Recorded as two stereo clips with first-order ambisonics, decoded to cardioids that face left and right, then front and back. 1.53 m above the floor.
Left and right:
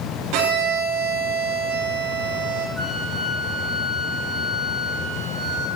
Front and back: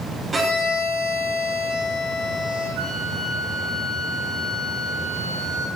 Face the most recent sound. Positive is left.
turn(degrees=-175)